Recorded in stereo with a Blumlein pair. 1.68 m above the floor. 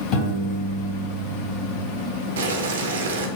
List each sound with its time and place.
0.1 s a piano: 40° left, 1.3 m
2.4 s boiling: 60° right, 0.5 m